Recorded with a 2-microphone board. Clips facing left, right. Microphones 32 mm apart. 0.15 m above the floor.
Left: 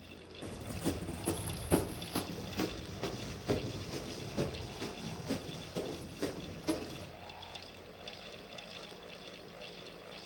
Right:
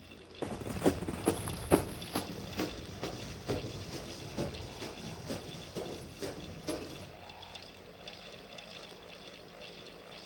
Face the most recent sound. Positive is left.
turn(degrees=15)  # may be behind; listen again after turning